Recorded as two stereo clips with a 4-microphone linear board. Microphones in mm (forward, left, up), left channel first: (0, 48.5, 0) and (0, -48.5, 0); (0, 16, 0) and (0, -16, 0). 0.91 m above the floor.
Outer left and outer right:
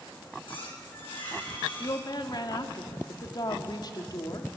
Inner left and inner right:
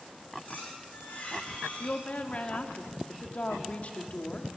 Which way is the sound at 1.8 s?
45° left (ahead or behind).